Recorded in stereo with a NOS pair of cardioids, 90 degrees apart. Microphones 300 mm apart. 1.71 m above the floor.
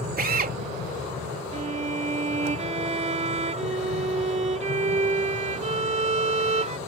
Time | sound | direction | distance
0.2 | a drill | 30° right | ?
1.5 | a violin | 25° right | ?